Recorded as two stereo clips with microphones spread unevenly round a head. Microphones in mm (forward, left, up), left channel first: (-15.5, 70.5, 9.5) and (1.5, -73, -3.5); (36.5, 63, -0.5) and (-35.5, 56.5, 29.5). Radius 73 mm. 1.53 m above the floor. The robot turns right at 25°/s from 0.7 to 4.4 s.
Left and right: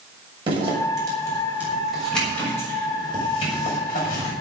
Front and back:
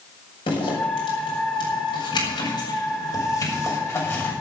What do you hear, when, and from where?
0.5 s a zipper: 25° right, 6.5 m; by 4.3 s 65° left, 6.5 m